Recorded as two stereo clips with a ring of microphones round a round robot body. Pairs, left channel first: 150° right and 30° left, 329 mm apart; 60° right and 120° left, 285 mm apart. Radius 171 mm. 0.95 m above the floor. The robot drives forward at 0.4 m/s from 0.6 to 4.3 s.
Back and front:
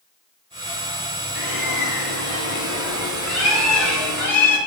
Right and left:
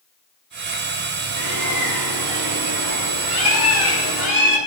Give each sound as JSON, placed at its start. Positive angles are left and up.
{"t": 1.4, "sound": "a bird", "azimuth_deg": 160, "distance_m": 2.5}